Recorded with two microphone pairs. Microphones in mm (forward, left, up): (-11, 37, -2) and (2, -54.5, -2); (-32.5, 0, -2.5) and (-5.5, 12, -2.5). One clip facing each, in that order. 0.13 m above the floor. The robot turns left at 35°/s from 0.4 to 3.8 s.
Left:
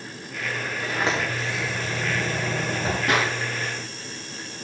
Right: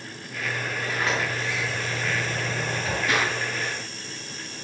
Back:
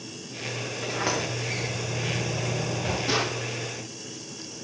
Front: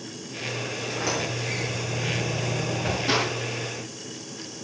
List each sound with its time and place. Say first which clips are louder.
0.8 s a sliding door: left 2 dB, back 1 dB; 170° left, 5 m; by 3.0 s 95° left, 5 m
3.1 s a clap: left 2 dB, front 2 dB; 95° left, 4 m; by 3.3 s 90° left, 4 m